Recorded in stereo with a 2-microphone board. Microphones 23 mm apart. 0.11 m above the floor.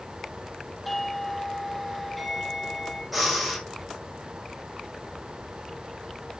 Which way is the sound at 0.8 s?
5° left (ahead or behind).